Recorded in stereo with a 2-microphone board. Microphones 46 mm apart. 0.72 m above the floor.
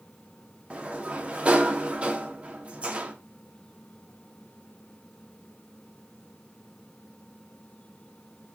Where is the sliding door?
25° right (ahead or behind), 0.7 m.